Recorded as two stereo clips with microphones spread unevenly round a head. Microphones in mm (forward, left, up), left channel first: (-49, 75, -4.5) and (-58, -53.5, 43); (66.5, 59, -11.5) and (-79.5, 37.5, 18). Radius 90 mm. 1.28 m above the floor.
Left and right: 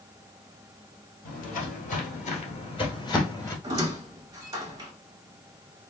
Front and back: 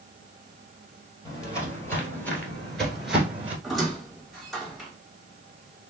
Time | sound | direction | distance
1.2 | footsteps | 80° left | 1.7 m
3.6 | a squeak | 95° right | 0.7 m